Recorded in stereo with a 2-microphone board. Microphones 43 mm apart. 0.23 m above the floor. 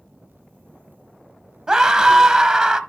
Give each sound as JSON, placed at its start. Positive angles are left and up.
{"t": 1.7, "sound": "a scream", "side_deg": -15, "distance_m": 1.1}